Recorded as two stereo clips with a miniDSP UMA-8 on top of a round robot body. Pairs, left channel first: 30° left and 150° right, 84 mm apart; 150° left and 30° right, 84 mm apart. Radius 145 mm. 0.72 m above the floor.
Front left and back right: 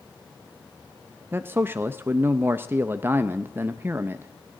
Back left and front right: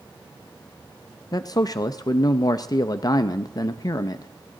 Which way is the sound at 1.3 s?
155° left.